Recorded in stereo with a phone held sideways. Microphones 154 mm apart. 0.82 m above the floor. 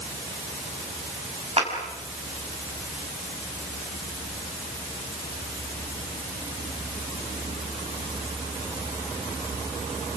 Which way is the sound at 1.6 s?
40° right (ahead or behind).